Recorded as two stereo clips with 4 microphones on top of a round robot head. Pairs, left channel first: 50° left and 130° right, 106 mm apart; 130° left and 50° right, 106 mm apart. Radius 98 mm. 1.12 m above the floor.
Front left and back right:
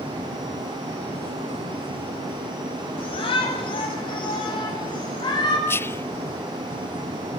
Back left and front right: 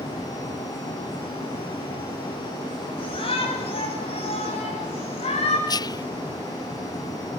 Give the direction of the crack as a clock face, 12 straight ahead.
No crack in this recording.